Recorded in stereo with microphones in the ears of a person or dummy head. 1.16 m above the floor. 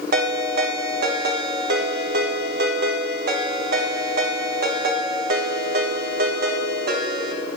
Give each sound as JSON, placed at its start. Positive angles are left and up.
{"t": 0.1, "sound": "a ringtone", "side_deg": -60, "distance_m": 0.8}